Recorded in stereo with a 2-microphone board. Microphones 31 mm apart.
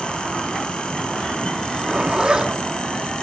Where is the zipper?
30° right (ahead or behind), 2.5 m.